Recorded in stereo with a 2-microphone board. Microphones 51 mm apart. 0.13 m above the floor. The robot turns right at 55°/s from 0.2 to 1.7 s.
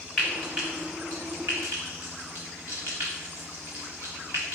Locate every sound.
0.2 s frying: 5° left (ahead or behind), 3 m; by 4.6 s 75° right (ahead or behind), 3 m